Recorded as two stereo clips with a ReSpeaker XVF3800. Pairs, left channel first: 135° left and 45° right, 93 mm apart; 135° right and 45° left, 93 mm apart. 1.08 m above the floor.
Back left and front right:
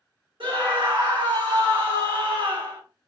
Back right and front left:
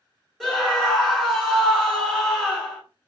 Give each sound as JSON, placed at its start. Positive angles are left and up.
{"t": 0.4, "sound": "a scream", "azimuth_deg": -45, "distance_m": 1.9}